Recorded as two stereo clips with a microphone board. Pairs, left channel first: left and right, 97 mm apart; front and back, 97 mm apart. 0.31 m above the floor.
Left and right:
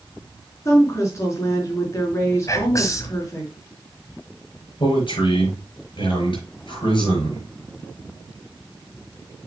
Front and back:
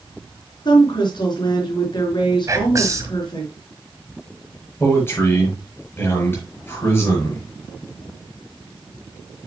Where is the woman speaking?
35° left, 4.5 m.